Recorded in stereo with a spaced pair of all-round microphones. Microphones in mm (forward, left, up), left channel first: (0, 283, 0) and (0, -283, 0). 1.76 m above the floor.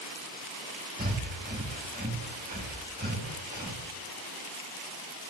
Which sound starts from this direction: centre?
Breathing, at 1.0 s.